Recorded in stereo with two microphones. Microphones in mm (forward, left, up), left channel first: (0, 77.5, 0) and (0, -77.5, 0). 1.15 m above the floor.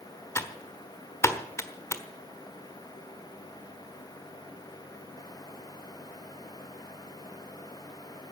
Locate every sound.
0.3 s typing on a keyboard: 20° left (ahead or behind), 1.3 m